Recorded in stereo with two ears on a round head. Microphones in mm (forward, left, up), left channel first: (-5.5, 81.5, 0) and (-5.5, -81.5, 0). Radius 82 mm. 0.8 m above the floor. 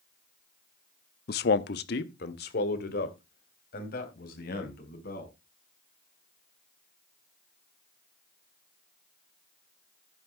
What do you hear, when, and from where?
1.3 s a man speaking: 55° left (ahead or behind), 0.7 m